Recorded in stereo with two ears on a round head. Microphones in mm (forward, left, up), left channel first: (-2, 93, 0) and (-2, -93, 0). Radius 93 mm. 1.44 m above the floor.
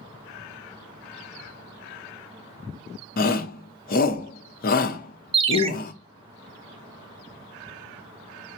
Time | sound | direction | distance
3.2 | a shout | 45° left (ahead or behind) | 0.8 m
5.3 | a ringtone | 25° right (ahead or behind) | 0.6 m